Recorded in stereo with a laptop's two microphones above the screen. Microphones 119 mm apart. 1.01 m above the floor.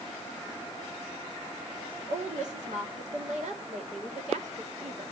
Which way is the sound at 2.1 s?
80° right.